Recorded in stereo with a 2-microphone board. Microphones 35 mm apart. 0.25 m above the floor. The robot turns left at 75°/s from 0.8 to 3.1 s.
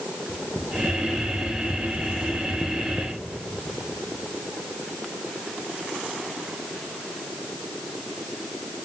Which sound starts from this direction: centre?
Tapping, at 0.3 s.